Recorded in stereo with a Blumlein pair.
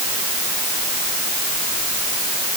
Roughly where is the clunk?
No clunk in this recording.